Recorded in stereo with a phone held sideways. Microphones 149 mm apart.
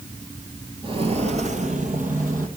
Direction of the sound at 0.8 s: 35° right (ahead or behind).